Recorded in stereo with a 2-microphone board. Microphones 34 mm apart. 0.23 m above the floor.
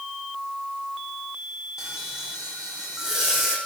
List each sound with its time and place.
1.8 s frying: 15° right (ahead or behind), 5 m